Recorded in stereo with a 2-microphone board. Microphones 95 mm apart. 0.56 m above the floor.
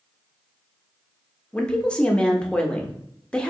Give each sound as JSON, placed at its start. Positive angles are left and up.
{"t": 1.5, "sound": "a woman speaking", "side_deg": 10, "distance_m": 0.6}